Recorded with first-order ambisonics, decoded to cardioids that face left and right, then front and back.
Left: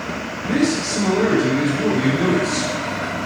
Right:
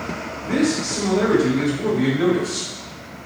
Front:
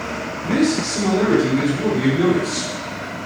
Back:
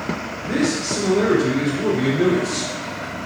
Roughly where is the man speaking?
Ahead left.